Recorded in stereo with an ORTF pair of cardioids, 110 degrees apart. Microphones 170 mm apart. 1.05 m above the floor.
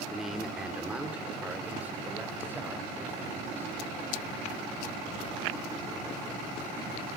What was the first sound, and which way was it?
A man speaking, straight ahead.